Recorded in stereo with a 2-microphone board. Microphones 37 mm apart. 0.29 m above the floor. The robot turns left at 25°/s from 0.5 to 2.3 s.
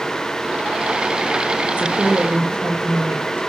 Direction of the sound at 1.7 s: 45° right (ahead or behind).